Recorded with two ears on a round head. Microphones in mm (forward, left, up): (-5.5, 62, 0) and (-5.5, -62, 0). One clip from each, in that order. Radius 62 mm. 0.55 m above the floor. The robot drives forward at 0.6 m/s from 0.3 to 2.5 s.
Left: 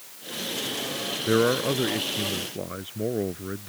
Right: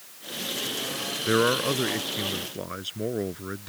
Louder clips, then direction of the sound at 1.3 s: Even; 75° right (ahead or behind).